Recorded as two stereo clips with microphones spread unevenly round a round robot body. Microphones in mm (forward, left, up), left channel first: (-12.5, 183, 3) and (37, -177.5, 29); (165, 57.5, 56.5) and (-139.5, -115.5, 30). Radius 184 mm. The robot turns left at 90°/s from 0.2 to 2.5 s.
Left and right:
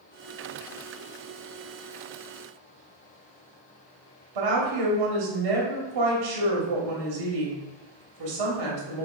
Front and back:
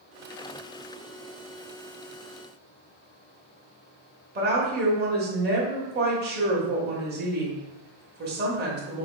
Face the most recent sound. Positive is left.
turn(degrees=-95)